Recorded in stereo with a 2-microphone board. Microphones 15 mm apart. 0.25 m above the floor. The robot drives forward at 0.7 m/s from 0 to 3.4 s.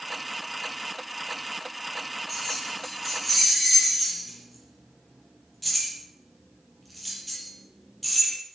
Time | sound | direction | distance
2.3 | keys jangling | 10° left (ahead or behind) | 6.5 m